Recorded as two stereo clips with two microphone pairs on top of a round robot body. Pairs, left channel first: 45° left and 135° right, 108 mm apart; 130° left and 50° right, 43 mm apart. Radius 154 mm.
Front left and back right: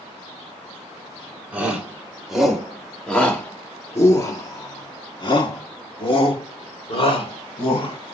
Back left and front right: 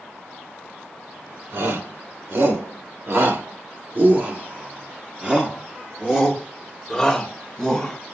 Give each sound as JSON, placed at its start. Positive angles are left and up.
{"t": 1.5, "sound": "a shout", "azimuth_deg": -50, "distance_m": 3.0}